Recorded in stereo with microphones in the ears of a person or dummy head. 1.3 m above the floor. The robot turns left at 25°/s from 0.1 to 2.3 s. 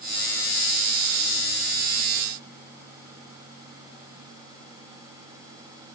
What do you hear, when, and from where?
Only background noise.